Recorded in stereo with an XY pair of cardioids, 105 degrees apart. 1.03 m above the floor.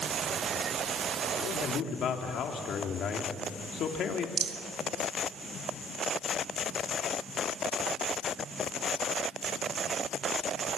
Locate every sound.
1.4 s a man speaking: 65° left, 3 m
4.4 s a rattle: 50° right, 1.8 m